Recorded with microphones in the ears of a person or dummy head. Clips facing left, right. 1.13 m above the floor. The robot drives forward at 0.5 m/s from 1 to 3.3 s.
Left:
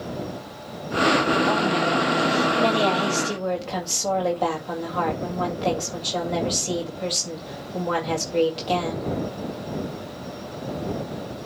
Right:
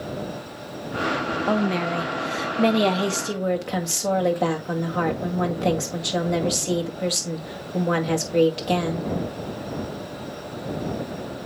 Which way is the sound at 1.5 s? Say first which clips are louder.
Left 1 dB; 40° right (ahead or behind).